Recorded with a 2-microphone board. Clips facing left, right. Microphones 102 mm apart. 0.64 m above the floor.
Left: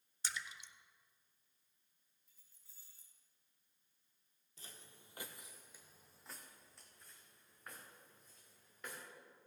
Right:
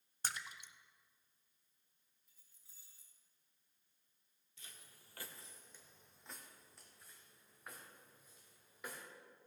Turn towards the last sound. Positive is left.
turn(degrees=-10)  # may be behind; listen again after turning